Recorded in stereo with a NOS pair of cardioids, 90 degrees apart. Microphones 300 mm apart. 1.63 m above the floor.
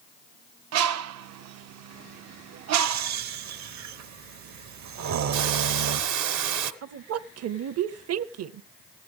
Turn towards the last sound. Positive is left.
turn(degrees=-50)